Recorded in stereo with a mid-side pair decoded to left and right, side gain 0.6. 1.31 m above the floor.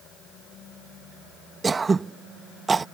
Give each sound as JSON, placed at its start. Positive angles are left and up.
{"t": 1.6, "sound": "throat clearing", "azimuth_deg": -20}